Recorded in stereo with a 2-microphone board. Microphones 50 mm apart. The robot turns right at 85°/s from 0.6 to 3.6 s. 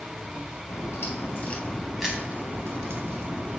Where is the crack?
75° left, 4 m; by 3.6 s 35° right, 4 m.